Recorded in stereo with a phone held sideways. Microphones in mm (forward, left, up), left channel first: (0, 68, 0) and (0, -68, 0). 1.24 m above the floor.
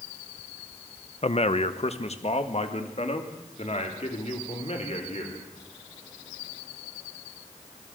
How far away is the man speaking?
About 0.9 m.